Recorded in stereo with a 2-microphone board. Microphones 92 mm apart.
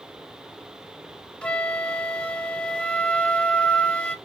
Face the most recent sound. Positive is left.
turn(degrees=10)  # may be behind; listen again after turning